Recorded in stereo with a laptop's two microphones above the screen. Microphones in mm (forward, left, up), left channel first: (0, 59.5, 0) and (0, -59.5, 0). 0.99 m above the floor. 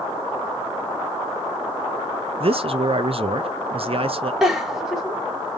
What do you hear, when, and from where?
2.4 s a man speaking: 55° right (ahead or behind), 0.6 m
4.4 s a giggle: 5° right (ahead or behind), 1.3 m